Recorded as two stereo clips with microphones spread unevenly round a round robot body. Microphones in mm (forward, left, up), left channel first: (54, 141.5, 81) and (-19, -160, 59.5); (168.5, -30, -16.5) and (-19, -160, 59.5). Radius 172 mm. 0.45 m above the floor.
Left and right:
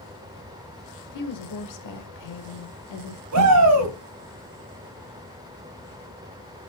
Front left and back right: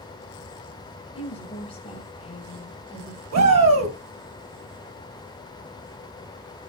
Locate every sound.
1.1 s a woman speaking: 95° left, 2.5 m
3.3 s a shout: 135° right, 3.5 m